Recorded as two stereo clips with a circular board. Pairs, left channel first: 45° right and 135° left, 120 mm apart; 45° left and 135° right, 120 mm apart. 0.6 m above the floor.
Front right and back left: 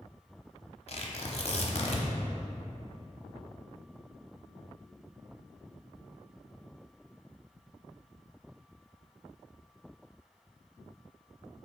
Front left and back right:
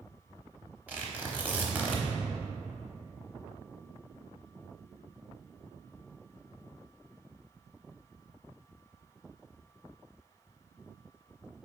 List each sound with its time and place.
0.9 s tearing paper: 60° right, 0.9 m